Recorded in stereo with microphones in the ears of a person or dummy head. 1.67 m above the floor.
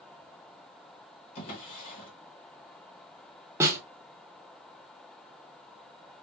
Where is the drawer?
45° left (ahead or behind), 1.2 m.